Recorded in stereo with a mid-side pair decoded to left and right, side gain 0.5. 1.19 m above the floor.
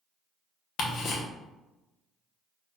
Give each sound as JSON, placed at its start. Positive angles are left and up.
{"t": 0.8, "sound": "ticking", "azimuth_deg": 60, "distance_m": 0.9}